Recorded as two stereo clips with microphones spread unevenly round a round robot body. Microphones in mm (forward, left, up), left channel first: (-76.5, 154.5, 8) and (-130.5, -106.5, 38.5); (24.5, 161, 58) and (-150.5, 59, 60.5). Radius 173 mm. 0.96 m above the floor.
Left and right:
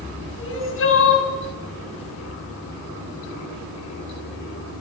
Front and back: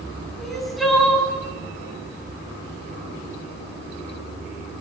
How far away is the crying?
About 9 m.